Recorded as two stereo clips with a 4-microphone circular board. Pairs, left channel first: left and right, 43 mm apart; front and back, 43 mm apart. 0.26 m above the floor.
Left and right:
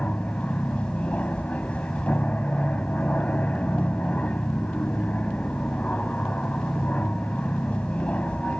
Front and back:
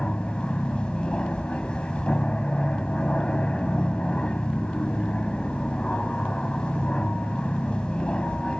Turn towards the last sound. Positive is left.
turn(degrees=55)